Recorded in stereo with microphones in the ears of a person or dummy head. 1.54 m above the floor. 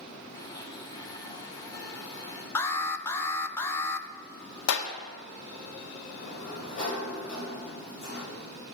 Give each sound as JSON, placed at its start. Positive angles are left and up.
{"t": 0.3, "sound": "a blender", "side_deg": 15, "distance_m": 1.5}
{"t": 2.5, "sound": "an alarm", "side_deg": 15, "distance_m": 0.8}
{"t": 4.7, "sound": "a clap", "side_deg": 75, "distance_m": 1.3}
{"t": 6.1, "sound": "a sliding door", "side_deg": 35, "distance_m": 7.0}